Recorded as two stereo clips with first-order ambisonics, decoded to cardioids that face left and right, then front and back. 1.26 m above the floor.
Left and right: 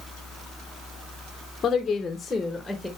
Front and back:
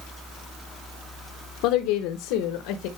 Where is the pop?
No pop in this recording.